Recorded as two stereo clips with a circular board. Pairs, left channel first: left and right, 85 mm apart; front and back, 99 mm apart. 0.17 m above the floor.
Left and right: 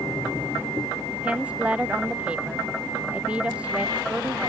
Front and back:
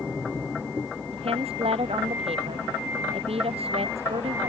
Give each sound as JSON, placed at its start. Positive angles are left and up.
{"t": 1.1, "sound": "a woman speaking", "azimuth_deg": -165}